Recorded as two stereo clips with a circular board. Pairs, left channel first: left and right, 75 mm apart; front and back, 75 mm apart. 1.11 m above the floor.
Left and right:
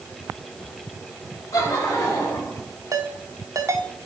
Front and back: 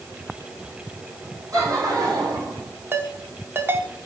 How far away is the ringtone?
About 1.2 m.